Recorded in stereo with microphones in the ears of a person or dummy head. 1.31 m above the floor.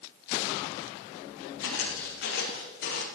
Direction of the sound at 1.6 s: 75° left (ahead or behind).